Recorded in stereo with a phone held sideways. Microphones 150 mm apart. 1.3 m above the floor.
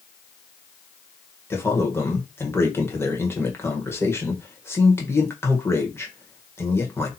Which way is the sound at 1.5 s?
15° left (ahead or behind).